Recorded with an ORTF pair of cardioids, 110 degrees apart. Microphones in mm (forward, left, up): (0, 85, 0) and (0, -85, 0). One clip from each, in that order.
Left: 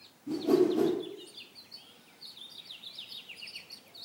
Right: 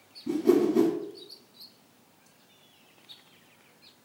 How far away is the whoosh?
About 0.9 m.